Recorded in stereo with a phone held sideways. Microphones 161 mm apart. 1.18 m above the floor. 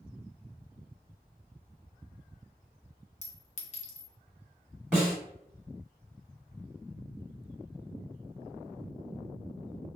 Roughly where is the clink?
Left.